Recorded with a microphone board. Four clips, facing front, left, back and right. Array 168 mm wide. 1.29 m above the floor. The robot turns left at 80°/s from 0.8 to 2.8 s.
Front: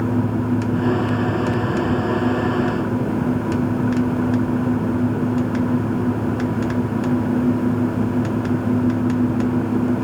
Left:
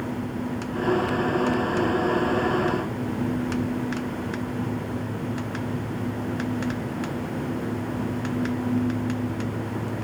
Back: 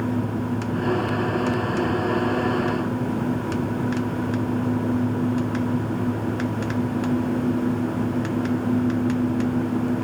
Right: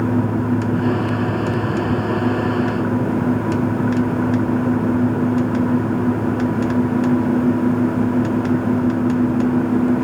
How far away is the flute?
No flute in this recording.